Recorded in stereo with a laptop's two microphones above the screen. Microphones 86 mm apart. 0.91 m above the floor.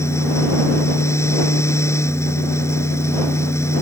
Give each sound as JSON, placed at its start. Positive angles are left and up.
{"t": 0.0, "sound": "a fan", "side_deg": 35}